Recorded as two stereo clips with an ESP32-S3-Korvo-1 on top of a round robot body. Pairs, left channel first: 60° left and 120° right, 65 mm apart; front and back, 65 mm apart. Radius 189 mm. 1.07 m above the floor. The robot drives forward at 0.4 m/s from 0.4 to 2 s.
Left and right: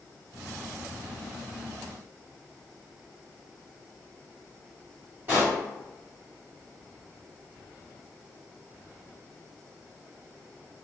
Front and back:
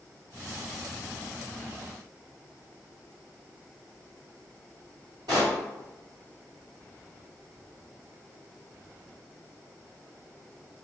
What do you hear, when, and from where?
5.3 s a pop: straight behind, 1.1 m